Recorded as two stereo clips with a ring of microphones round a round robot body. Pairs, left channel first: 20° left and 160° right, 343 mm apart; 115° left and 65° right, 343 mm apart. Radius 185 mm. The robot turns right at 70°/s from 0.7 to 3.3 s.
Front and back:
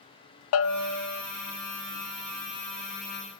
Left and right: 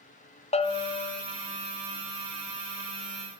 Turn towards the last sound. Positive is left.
turn(degrees=-130)